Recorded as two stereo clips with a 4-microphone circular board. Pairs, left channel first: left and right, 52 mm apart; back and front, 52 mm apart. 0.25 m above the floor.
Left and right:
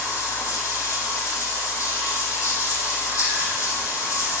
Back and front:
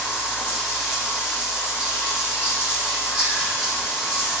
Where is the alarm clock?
I don't hear an alarm clock.